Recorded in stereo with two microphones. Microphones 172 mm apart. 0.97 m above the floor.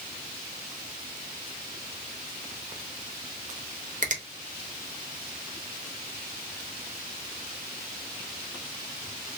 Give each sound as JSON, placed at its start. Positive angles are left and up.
{"t": 4.0, "sound": "a finger snap", "side_deg": -50, "distance_m": 0.9}